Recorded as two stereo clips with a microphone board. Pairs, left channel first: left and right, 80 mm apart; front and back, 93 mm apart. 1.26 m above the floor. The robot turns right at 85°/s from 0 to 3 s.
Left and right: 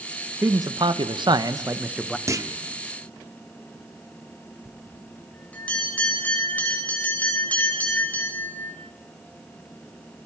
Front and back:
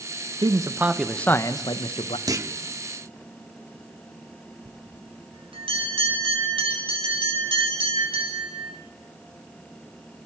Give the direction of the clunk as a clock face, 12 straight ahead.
5 o'clock.